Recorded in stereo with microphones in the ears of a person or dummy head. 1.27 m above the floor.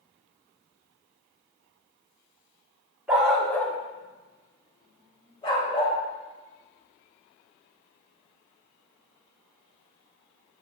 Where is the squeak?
I don't hear a squeak.